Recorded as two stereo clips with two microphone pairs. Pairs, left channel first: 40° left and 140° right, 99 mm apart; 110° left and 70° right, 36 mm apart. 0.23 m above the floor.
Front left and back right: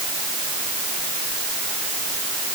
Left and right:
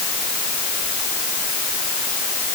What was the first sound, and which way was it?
Only background noise.